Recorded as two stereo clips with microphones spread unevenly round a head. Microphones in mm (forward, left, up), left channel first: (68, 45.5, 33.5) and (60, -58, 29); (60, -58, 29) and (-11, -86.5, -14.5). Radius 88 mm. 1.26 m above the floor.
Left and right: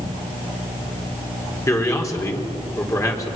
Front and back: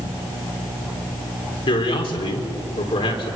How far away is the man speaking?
About 4 m.